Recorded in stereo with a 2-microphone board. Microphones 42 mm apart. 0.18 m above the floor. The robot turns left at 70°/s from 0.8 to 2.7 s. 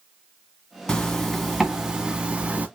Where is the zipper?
35° left, 1.6 m; by 2.7 s 90° right, 1.6 m.